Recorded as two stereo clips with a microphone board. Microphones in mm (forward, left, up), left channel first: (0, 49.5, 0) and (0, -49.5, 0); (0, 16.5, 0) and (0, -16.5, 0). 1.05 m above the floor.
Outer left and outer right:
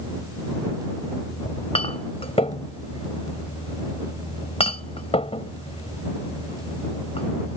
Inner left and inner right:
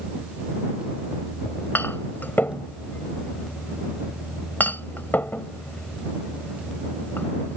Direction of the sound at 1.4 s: 85° left.